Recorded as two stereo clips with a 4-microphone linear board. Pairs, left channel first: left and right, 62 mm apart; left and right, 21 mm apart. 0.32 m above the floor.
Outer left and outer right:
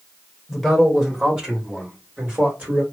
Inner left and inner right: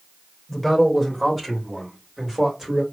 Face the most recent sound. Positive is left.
turn(degrees=-25)  # may be behind; listen again after turning